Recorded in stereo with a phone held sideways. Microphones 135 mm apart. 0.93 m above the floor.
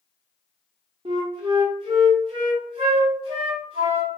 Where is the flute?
40° right (ahead or behind), 1.1 m.